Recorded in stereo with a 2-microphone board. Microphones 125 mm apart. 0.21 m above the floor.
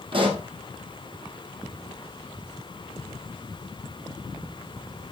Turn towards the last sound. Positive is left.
turn(degrees=-45)  # may be behind; listen again after turning